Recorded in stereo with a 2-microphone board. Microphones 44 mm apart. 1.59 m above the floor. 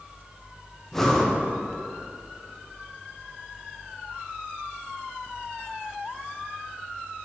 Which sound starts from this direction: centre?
Breathing, at 0.9 s.